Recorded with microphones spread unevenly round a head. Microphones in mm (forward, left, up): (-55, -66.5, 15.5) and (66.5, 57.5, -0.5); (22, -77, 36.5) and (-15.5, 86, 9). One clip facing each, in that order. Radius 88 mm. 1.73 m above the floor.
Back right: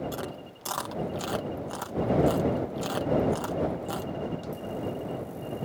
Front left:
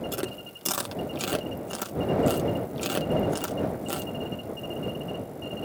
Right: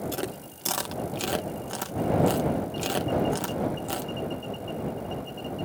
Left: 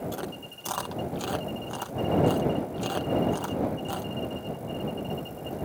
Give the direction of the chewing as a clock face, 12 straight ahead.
12 o'clock.